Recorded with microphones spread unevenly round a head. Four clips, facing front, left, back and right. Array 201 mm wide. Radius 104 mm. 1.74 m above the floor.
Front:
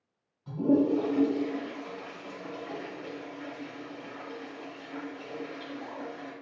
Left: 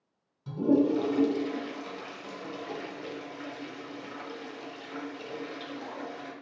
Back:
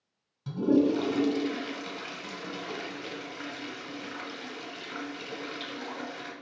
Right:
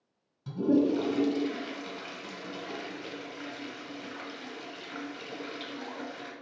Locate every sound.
0.5 s a toilet flushing: straight behind, 3 m